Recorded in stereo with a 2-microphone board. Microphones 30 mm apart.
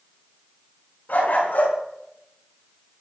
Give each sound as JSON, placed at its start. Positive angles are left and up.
{"t": 1.1, "sound": "a dog barking", "side_deg": 75, "distance_m": 6.5}